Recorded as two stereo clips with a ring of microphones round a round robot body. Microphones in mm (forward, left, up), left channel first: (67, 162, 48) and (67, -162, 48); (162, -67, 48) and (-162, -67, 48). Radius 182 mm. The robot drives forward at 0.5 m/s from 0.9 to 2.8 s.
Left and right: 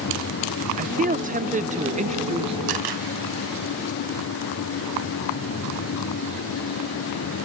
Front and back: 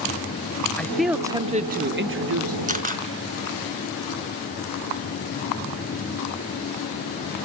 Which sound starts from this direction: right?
A man speaking, at 0.8 s.